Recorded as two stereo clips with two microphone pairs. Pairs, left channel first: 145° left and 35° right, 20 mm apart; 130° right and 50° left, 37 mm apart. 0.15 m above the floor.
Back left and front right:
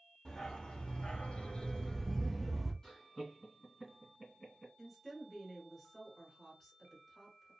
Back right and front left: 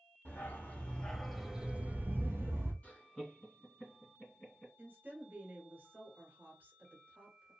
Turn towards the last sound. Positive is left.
turn(degrees=65)